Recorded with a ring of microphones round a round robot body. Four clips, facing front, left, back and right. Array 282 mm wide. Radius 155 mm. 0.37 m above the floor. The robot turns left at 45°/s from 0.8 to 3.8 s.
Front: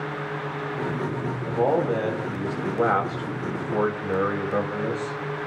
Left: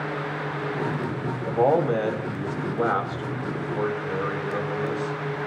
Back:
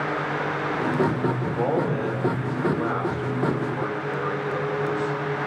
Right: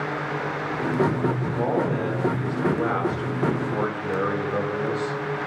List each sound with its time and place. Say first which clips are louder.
1.4 s a man speaking: left 3 dB, front 6 dB; 85° left, 3 m; by 5.2 s 20° right, 3 m